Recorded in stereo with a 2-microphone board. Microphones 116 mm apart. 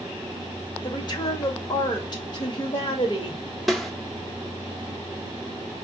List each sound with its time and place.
0.8 s a woman speaking: 40° left (ahead or behind), 1.9 m
3.7 s a snare drum: centre (ahead or behind), 0.9 m